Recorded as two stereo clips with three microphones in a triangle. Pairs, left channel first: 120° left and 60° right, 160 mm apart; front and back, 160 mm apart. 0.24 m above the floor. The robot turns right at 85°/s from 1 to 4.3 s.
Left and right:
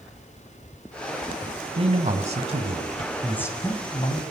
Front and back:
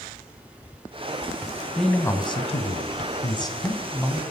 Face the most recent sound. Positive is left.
turn(degrees=125)